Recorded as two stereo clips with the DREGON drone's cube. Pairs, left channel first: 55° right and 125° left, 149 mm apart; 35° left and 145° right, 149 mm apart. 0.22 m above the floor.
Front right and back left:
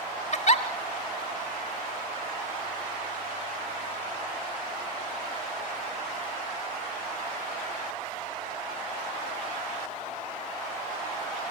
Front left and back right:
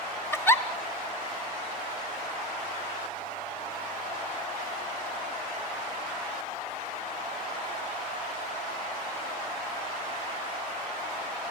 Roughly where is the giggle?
Ahead right.